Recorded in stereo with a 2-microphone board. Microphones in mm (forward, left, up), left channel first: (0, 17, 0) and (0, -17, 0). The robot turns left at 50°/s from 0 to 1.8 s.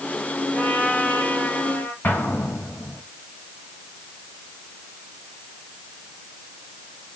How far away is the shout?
No shout in this recording.